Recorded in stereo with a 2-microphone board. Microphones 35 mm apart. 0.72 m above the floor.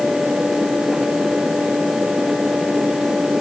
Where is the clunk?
No clunk in this recording.